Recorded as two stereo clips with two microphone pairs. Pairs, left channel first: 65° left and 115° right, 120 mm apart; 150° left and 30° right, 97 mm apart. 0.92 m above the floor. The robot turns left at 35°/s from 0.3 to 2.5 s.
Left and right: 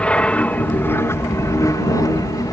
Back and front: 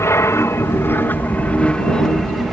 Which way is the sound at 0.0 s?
135° left.